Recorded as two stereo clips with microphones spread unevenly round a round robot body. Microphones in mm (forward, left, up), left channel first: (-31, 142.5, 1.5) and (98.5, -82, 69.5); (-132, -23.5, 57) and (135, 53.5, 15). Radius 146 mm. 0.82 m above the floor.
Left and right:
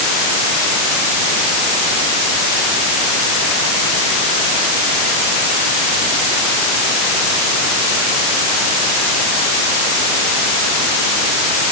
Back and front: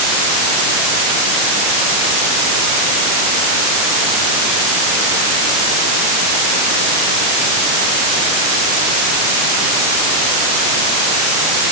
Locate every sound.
Only background noise.